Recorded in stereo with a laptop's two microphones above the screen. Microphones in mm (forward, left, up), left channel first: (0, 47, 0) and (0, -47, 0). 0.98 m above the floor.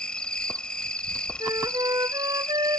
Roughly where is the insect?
Centre.